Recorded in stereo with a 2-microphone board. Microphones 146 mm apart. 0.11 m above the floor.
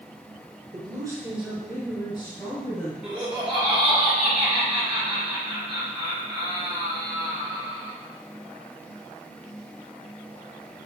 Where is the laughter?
35° right (ahead or behind), 1.8 m.